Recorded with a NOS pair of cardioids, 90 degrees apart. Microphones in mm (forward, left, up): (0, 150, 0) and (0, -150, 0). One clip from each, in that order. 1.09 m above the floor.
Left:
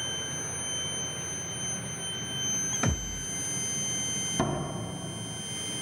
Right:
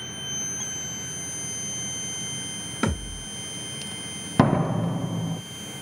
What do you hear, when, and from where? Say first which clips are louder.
2.8 s a thud: right 3 dB; 30° right, 1.1 m
4.4 s a door slam: right 8 dB; 45° right, 0.5 m